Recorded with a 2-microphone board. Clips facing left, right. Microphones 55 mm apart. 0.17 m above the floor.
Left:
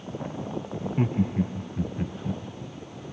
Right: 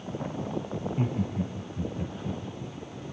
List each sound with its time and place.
0.8 s laughter: 40° left (ahead or behind), 1.2 m